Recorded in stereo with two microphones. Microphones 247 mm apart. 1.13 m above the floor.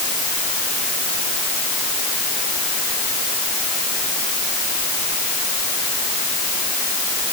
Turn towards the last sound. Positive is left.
No sound to turn to.